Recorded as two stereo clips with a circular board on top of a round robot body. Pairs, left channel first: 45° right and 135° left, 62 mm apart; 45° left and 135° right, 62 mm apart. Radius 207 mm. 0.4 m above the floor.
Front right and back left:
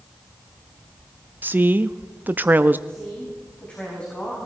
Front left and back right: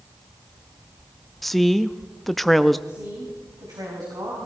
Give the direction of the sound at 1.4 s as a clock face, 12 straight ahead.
8 o'clock.